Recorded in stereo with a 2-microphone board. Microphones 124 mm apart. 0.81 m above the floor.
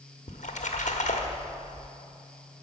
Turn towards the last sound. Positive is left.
turn(degrees=75)  # may be behind; listen again after turning